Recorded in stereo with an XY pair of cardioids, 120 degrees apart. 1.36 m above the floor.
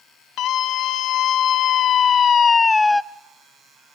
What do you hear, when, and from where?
0.4 s a scream: 70° left, 1.5 m; by 3.0 s straight ahead, 0.5 m